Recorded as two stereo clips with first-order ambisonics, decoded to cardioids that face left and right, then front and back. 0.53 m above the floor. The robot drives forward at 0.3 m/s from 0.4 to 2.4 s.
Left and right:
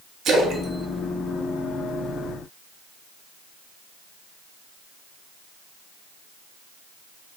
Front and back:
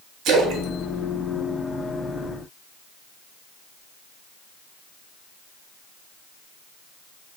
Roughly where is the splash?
Behind right.